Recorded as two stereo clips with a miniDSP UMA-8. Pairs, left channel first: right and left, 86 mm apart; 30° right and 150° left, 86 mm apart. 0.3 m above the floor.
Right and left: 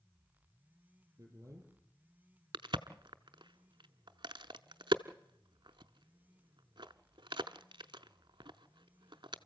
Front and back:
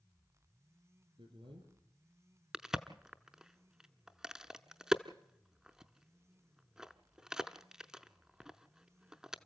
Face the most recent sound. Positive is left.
turn(degrees=65)